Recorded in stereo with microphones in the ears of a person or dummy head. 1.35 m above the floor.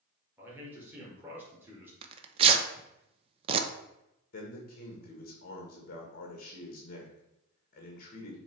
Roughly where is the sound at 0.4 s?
Right.